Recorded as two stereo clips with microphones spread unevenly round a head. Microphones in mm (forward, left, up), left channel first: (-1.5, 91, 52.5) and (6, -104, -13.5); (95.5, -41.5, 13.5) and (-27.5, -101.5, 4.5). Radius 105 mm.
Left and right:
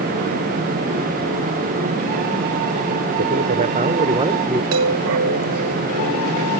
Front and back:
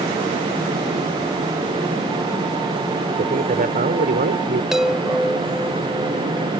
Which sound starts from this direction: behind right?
A man speaking, at 3.2 s.